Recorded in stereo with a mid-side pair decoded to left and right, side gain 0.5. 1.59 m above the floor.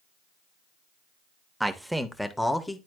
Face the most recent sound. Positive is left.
turn(degrees=15)